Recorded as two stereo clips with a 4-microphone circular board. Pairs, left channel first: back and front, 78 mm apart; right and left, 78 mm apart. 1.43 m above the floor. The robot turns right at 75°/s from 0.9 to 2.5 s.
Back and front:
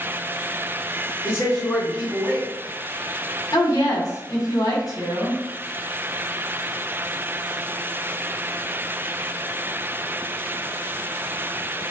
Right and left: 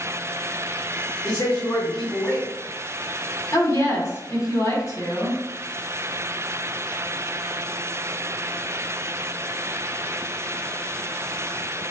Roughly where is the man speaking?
Behind right.